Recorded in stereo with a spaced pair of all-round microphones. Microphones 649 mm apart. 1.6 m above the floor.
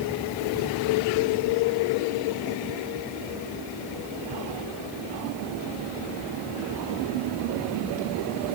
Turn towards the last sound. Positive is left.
No sound to turn to.